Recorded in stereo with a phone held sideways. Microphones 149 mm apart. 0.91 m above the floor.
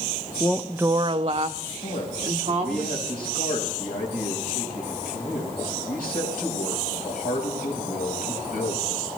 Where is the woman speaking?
20° left (ahead or behind), 0.6 m; by 2.8 s 40° right (ahead or behind), 2.5 m.